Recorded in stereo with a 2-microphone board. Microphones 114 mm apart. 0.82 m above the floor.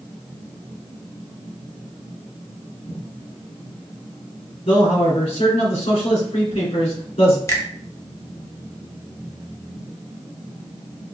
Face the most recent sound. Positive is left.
turn(degrees=25)  # may be behind; listen again after turning